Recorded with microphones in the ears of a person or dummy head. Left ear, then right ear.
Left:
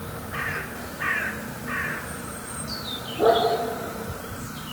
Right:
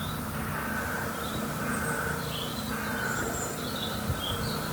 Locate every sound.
Only background noise.